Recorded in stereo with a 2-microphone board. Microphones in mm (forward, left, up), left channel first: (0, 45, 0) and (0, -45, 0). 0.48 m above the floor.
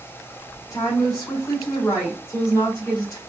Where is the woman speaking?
40° left (ahead or behind), 2.5 m.